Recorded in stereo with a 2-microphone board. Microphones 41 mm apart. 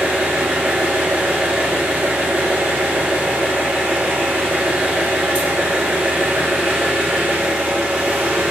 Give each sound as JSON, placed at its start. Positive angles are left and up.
{"t": 0.0, "sound": "an engine running", "side_deg": -30, "distance_m": 2.5}